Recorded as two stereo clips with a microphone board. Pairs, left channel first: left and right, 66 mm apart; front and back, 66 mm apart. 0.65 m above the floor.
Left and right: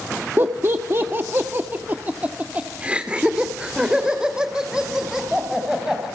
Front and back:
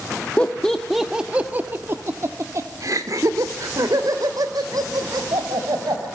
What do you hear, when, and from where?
0.4 s laughter: 60° right, 1.2 m; by 6.1 s 170° right, 4.5 m